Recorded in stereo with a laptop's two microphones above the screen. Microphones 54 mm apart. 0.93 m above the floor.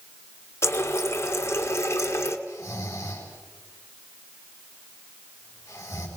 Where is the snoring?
85° left, 4.5 m.